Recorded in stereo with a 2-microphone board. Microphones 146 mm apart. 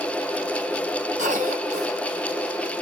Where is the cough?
60° right (ahead or behind), 4.5 m.